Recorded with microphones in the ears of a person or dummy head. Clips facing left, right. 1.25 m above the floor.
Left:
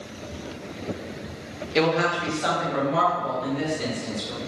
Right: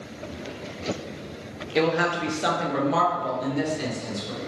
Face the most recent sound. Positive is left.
turn(degrees=-80)